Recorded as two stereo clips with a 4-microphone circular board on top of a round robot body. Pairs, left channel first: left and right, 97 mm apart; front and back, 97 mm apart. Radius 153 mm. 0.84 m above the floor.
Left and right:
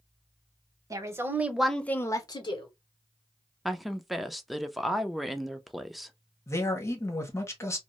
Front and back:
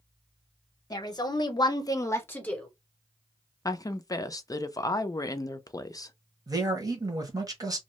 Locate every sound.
0.9 s a woman speaking: 40° right, 1.1 m; by 2.7 s 80° left, 1.0 m
3.6 s a woman speaking: straight ahead, 0.6 m
6.5 s a man speaking: 140° left, 1.3 m